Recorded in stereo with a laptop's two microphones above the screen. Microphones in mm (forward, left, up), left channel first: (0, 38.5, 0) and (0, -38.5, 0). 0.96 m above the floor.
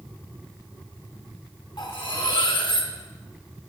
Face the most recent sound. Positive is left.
turn(degrees=90)